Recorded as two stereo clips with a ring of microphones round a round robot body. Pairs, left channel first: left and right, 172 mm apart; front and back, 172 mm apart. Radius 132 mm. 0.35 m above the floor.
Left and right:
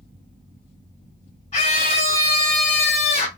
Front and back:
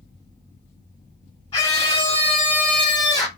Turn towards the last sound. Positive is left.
turn(degrees=65)